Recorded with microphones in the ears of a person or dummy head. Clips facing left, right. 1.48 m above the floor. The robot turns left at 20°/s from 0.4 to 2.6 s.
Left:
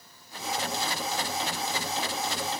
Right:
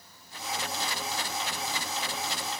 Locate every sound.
Only background noise.